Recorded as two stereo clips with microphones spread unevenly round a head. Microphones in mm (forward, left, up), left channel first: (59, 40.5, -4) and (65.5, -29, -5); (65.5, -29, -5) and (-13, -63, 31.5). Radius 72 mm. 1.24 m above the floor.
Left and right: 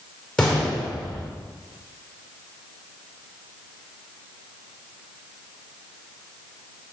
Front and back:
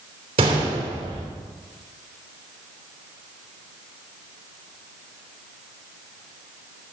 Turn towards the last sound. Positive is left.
turn(degrees=180)